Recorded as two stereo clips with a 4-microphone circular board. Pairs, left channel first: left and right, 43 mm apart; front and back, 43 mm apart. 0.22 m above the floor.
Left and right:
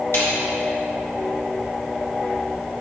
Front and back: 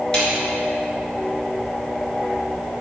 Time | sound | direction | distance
0.1 | a snare drum | 70° left | 3 m